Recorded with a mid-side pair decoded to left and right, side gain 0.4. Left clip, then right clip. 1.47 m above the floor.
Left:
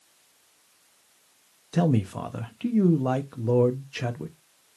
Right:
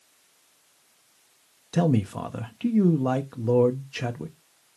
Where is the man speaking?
5° right, 0.6 m.